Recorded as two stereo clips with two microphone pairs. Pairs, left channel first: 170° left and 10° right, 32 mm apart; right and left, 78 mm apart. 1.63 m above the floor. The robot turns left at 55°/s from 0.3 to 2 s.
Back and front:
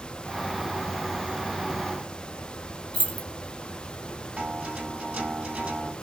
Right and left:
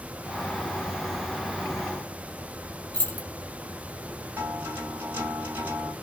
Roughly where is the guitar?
Ahead left.